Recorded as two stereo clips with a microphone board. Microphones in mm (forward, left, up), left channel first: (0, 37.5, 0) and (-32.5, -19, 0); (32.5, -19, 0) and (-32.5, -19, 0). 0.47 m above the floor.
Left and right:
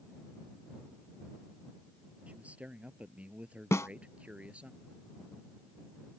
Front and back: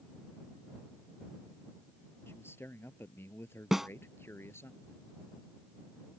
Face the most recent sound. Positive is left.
turn(degrees=100)